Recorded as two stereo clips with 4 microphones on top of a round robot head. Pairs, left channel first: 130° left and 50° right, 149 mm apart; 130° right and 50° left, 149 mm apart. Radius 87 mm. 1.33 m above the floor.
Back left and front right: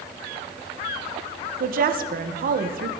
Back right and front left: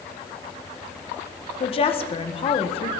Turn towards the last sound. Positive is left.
turn(degrees=-75)